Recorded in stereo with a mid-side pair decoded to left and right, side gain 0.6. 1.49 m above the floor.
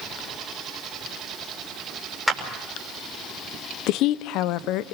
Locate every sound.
2.3 s a clap: 5° left, 6.5 m
3.9 s a woman speaking: 70° left, 0.9 m